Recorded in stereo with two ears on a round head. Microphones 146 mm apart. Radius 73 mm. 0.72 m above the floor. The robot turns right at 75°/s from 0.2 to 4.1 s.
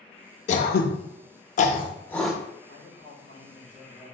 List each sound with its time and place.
0.5 s throat clearing: 40° left (ahead or behind), 0.6 m; by 2.4 s 10° right (ahead or behind), 0.6 m
2.7 s a man speaking: 90° left, 2 m; by 4.1 s 165° right, 2 m